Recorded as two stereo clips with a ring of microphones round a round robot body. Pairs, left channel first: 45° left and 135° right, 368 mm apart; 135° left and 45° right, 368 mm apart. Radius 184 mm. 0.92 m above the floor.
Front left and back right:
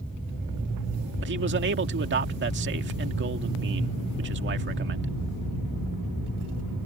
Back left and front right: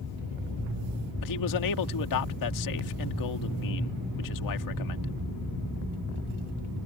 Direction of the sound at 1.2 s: 165° left.